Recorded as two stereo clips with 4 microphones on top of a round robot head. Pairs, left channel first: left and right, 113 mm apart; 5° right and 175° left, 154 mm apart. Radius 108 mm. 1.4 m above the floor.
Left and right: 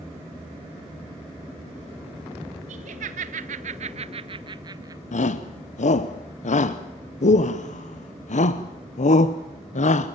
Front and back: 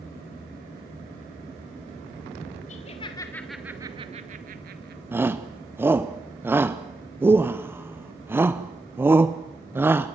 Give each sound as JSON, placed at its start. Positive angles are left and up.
{"t": 2.7, "sound": "laughter", "azimuth_deg": -55, "distance_m": 1.3}
{"t": 5.1, "sound": "a shout", "azimuth_deg": 100, "distance_m": 0.8}